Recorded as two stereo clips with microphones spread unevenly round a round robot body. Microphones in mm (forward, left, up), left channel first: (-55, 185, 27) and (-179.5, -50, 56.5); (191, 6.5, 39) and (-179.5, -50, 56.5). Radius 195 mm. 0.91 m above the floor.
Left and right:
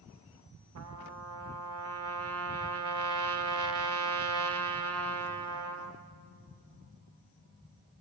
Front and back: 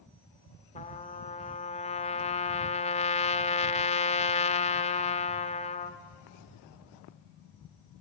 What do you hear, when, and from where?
0.8 s a trumpet: 65° right, 1.0 m